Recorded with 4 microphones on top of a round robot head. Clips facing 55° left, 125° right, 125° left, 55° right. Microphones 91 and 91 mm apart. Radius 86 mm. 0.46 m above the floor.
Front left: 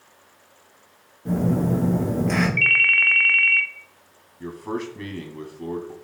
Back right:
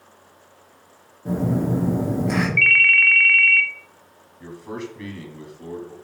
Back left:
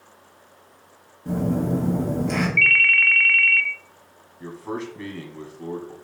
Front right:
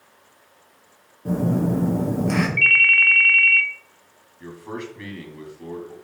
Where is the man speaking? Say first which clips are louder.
Front left 3 dB, back left 2 dB; 60° left, 1.4 m.